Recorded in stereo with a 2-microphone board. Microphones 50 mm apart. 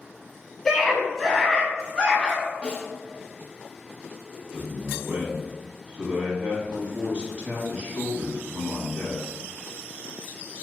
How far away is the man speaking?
About 1.4 m.